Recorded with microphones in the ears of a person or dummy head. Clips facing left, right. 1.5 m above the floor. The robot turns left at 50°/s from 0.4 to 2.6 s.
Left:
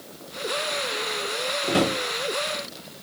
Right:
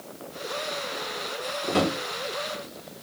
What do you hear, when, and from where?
1.7 s a drawer: 15° left (ahead or behind), 1.1 m; by 1.9 s 25° left (ahead or behind), 1.1 m